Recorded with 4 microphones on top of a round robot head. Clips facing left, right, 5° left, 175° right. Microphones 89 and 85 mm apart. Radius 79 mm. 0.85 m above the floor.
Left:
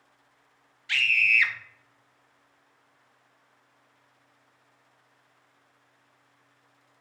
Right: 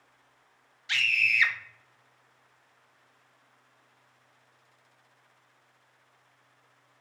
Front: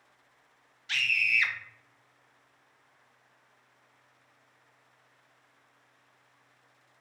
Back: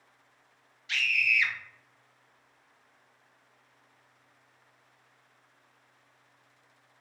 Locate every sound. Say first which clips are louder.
0.9 s a scream: left 3 dB, back 1 dB; 25° right, 0.6 m